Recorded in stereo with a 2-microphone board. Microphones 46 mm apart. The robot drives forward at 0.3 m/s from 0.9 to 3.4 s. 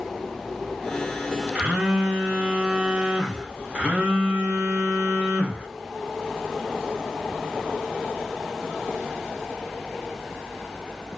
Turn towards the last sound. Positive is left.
turn(degrees=-25)  # may be behind; listen again after turning